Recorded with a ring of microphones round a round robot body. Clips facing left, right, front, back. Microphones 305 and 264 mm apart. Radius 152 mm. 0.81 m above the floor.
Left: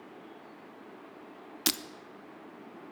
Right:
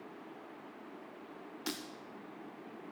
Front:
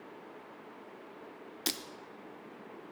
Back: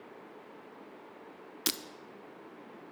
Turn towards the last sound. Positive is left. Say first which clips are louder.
# left 5 dB, back 1 dB
turn(degrees=105)